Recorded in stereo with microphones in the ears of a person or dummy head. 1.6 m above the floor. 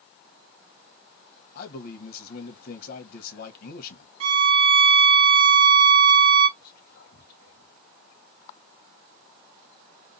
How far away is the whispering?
About 1.5 m.